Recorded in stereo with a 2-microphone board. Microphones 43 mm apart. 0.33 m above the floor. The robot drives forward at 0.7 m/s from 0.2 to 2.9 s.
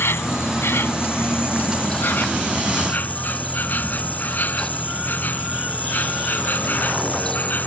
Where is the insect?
65° left (ahead or behind); by 7.7 s 45° left (ahead or behind).